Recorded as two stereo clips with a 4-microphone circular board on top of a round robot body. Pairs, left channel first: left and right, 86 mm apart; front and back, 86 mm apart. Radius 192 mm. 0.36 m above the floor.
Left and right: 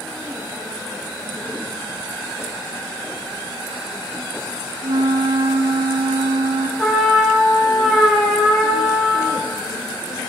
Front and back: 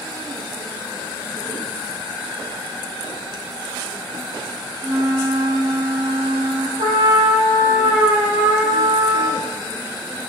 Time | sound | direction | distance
4.8 | a flute | 125° right | 3.5 m
6.8 | a trumpet | straight behind | 8 m